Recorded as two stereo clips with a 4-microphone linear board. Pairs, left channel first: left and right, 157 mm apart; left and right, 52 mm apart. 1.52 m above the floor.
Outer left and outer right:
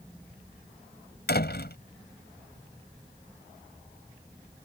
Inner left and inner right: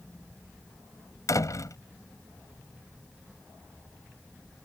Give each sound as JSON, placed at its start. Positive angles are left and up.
{"t": 1.3, "sound": "a door slam", "side_deg": 80}